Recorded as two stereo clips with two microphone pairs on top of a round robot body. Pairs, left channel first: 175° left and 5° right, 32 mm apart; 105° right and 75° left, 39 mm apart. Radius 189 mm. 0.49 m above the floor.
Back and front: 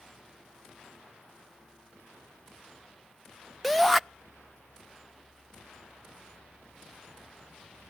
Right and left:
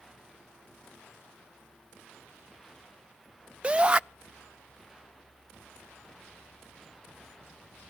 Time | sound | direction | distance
3.6 | a shout | 90° left | 0.7 m